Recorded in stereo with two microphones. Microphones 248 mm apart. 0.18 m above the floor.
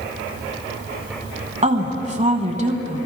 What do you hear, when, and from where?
1.6 s a woman speaking: 30° right (ahead or behind), 1.2 m